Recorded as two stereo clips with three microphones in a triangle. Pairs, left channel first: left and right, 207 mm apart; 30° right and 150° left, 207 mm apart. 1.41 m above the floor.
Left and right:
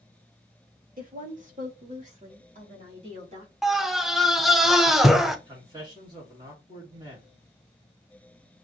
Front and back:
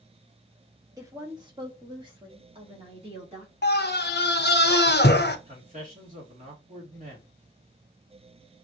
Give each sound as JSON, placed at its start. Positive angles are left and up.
{"t": 1.0, "sound": "a woman speaking", "azimuth_deg": -135, "distance_m": 1.5}
{"t": 3.6, "sound": "a scream", "azimuth_deg": 0, "distance_m": 0.8}
{"t": 5.5, "sound": "a man speaking", "azimuth_deg": -160, "distance_m": 2.5}